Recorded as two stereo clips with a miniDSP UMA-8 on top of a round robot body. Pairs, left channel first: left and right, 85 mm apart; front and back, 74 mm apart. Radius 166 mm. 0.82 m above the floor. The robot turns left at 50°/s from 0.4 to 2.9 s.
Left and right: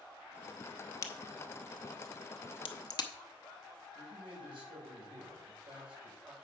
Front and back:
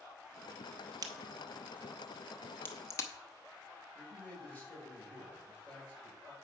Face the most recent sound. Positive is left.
turn(degrees=-70)